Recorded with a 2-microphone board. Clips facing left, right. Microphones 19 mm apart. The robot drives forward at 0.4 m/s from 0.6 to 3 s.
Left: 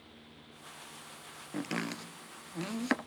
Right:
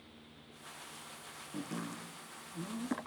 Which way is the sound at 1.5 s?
70° left (ahead or behind).